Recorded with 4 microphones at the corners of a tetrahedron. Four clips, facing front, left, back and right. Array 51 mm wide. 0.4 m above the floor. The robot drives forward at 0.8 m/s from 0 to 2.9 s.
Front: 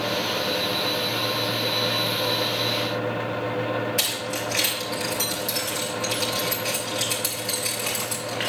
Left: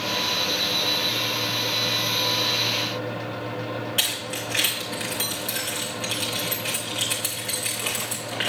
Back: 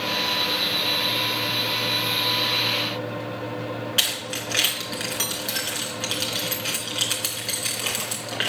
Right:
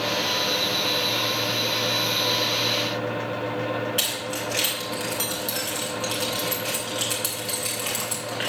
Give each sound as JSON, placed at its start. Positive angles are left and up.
{"t": 4.0, "sound": "keys jangling", "azimuth_deg": 170, "distance_m": 3.0}